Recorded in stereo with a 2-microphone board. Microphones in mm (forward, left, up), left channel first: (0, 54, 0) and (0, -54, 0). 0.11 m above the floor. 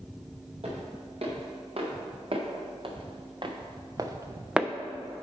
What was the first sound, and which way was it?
Footsteps, 70° right (ahead or behind).